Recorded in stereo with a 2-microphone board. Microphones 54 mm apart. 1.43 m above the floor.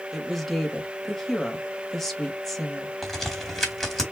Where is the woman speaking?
5° left (ahead or behind), 1.7 m.